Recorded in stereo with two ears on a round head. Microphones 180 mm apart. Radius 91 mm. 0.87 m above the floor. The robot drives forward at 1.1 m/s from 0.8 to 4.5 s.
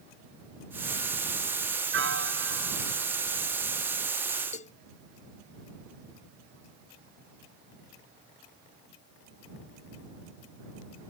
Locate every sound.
1.9 s a piano: 60° right (ahead or behind); by 3.0 s 65° right (ahead or behind)
4.5 s a cowbell: 35° left (ahead or behind)